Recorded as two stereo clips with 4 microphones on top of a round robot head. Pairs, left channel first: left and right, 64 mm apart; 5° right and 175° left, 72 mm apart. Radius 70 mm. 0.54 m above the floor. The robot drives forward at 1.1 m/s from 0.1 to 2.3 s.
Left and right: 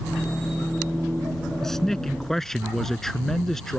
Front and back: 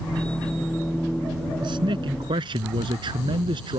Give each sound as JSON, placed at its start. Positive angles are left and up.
{"t": 1.6, "sound": "a man speaking", "azimuth_deg": 175}